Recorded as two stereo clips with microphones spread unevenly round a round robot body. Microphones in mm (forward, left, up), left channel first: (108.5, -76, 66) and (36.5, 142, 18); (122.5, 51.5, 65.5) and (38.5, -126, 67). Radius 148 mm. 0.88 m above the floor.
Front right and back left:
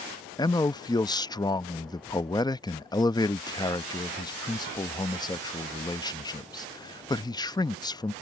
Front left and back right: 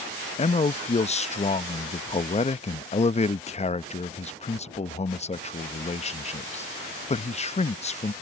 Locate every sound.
0.4 s a man speaking: 5° left